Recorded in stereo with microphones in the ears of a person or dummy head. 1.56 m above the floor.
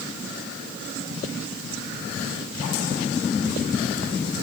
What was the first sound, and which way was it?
Only background noise.